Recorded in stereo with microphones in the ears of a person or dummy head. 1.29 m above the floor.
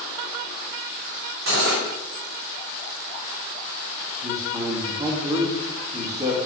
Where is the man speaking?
15° right (ahead or behind), 2.0 m.